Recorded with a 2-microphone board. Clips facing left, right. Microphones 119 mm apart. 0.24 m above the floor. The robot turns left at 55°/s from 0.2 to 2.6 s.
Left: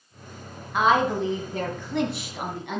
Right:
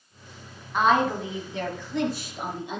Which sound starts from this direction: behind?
A woman speaking, at 0.7 s.